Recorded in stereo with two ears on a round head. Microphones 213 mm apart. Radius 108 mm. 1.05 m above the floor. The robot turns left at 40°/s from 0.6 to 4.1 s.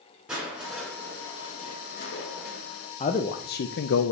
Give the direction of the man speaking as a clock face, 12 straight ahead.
7 o'clock.